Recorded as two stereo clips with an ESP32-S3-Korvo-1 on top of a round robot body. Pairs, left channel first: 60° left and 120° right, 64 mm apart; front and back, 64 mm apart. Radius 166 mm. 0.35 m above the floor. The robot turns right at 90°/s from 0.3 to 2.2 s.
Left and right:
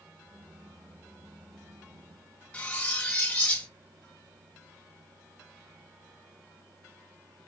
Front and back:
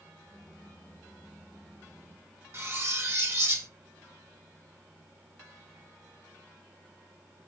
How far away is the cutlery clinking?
About 1.0 m.